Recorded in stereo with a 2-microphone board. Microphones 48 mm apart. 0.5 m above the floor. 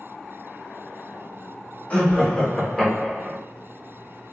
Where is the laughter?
30° left (ahead or behind), 1.0 m; by 3.4 s centre (ahead or behind), 1.3 m.